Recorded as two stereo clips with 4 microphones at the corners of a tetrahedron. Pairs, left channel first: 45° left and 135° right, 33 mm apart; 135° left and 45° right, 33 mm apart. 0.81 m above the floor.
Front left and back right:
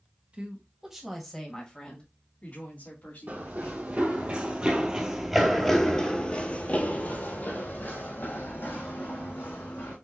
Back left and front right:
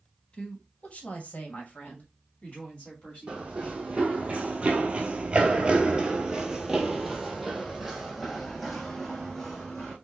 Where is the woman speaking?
Straight behind, 1.4 m; by 4.3 s 75° left, 3.5 m.